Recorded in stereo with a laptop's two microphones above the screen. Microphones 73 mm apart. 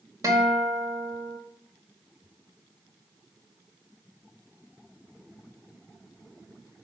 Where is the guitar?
50° right (ahead or behind), 1.9 m.